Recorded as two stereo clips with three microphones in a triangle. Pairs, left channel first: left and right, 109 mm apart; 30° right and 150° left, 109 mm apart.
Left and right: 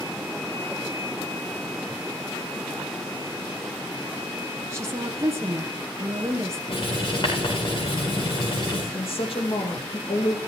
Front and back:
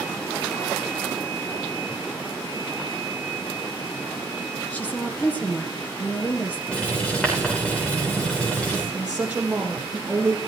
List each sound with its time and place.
4.7 s a woman speaking: 85° right, 1.3 m
6.7 s writing: 50° left, 6 m
8.9 s a woman speaking: 75° left, 4 m